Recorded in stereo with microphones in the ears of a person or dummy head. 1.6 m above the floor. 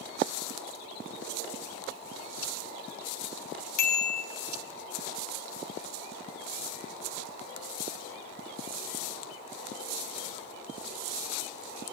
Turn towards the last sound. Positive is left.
turn(degrees=60)  # may be behind; listen again after turning